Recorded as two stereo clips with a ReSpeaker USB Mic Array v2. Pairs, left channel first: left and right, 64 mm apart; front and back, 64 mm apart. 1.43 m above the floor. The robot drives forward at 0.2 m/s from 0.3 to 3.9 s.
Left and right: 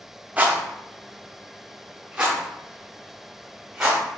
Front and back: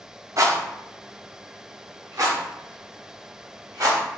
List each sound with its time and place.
0.4 s a rattle: 155° right, 0.7 m; by 4.0 s 170° right, 1.4 m